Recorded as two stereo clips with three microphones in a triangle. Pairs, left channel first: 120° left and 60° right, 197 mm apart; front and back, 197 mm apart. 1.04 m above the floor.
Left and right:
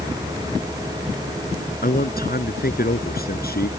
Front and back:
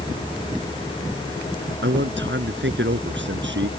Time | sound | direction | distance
1.8 | a man speaking | 160° left | ?